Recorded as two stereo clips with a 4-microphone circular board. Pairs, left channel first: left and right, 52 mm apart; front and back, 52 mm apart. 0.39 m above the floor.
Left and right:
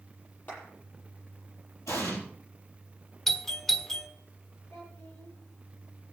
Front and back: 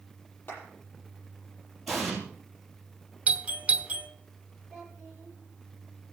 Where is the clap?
40° left, 9 m.